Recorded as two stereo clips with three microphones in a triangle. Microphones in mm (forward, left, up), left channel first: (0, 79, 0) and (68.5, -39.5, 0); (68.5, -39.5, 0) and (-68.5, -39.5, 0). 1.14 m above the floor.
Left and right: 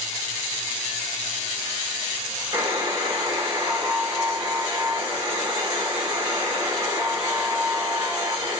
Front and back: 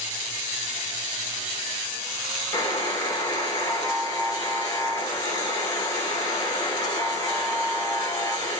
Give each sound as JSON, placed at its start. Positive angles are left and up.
{"t": 2.5, "sound": "a buzzer", "azimuth_deg": -35, "distance_m": 0.9}